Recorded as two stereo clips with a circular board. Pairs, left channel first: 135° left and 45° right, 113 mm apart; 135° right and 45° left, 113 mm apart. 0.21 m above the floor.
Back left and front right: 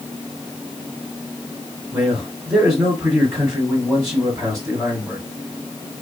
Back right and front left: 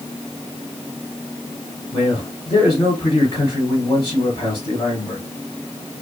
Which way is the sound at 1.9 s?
105° right.